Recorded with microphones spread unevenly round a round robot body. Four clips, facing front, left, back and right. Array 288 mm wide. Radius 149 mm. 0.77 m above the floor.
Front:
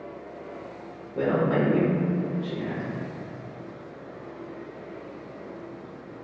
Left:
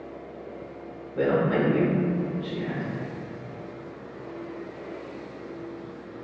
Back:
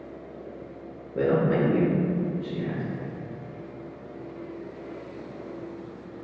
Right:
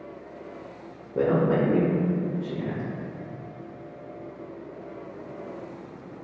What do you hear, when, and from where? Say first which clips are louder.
1.1 s a man speaking: right 1 dB, back 1 dB; 110° right, 0.8 m